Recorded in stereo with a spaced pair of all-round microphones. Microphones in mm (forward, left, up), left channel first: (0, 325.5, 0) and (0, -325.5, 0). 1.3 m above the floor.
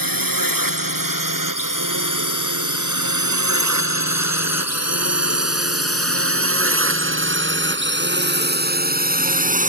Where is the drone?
30° right (ahead or behind); by 9.7 s 10° right (ahead or behind).